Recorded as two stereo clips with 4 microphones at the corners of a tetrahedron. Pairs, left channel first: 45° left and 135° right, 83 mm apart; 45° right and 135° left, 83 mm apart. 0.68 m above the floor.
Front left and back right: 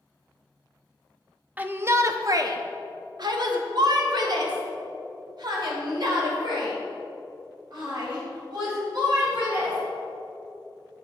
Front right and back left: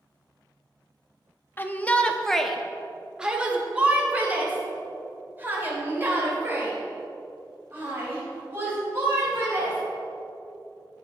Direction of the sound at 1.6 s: 80° right.